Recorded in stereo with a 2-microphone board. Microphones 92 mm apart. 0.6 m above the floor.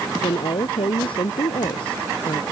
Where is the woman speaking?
70° left (ahead or behind).